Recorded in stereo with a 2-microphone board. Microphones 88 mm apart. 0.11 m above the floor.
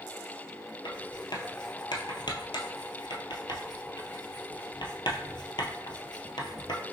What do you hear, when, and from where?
0.8 s writing: 65° left (ahead or behind), 0.8 m